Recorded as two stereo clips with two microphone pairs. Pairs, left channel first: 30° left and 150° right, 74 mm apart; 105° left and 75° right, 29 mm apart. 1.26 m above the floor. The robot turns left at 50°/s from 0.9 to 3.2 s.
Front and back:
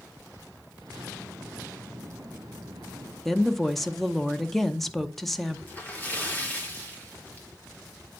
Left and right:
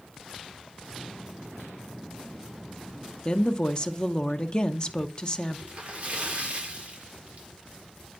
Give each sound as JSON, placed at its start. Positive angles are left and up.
{"t": 3.2, "sound": "a woman speaking", "azimuth_deg": 105, "distance_m": 0.5}
{"t": 5.7, "sound": "a splash", "azimuth_deg": -30, "distance_m": 1.4}